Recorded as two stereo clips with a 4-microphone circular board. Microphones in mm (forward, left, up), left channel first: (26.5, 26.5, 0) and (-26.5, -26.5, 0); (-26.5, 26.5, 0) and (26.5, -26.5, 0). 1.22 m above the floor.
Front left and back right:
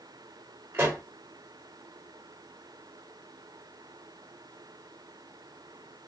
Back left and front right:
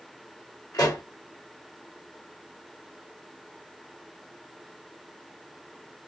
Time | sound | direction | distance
0.7 | a pop | 170° left | 3 m